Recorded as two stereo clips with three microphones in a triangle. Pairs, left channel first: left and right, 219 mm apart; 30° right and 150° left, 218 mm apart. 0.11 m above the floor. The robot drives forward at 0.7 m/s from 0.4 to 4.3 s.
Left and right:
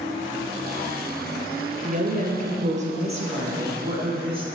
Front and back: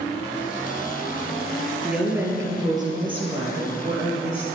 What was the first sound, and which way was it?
A woman speaking, 125° right.